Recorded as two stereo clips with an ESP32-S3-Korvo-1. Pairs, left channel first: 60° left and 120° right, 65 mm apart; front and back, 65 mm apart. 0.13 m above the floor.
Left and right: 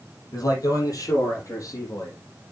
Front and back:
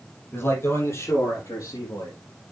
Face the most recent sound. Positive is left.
turn(degrees=25)